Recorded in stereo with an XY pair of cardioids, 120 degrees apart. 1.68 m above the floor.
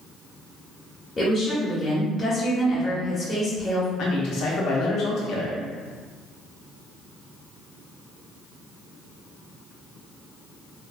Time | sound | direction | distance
1.2 | a woman speaking | 30° left | 0.9 m
4.0 | a man speaking | 65° left | 0.9 m